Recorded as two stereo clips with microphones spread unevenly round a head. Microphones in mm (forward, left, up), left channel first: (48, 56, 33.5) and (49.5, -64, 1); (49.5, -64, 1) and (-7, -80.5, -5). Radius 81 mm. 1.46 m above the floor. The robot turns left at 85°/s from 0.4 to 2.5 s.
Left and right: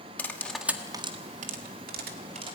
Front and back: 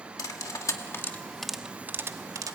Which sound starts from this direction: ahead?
Cutlery clinking, at 0.2 s.